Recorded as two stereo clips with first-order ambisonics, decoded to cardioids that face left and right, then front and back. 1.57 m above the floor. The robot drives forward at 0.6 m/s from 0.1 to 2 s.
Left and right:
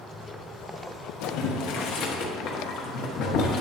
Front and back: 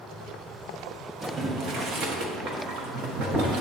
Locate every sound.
1.2 s boiling: 110° left, 0.8 m; by 3.6 s 135° left, 1.0 m